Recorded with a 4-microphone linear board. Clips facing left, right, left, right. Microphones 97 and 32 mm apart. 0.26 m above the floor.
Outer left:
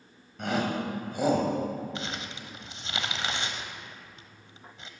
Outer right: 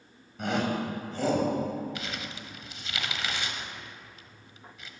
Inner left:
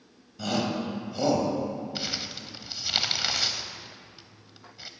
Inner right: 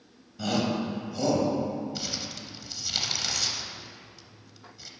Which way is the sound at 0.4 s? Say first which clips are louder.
Even, inner right 1 dB; centre (ahead or behind).